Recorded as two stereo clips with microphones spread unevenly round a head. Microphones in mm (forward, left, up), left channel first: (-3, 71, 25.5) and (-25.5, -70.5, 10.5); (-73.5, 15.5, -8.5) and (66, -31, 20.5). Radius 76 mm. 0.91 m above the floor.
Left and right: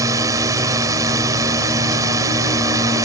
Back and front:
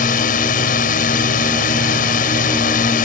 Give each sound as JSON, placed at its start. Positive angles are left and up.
{"t": 0.0, "sound": "a drone", "azimuth_deg": -165}